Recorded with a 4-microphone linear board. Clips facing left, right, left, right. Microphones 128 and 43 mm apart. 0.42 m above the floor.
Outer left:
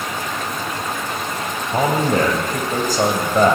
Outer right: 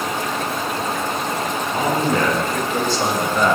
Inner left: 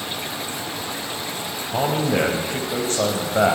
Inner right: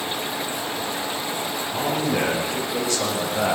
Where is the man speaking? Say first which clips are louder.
Outer left 3 dB, inner left 4 dB; 45° left (ahead or behind), 3 m.